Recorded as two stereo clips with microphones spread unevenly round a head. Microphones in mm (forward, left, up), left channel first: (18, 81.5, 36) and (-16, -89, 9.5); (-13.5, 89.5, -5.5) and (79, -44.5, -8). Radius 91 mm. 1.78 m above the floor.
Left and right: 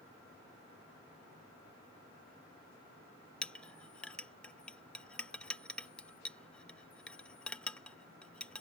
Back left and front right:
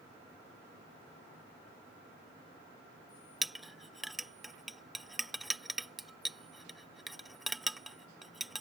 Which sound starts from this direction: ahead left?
A clink, at 3.4 s.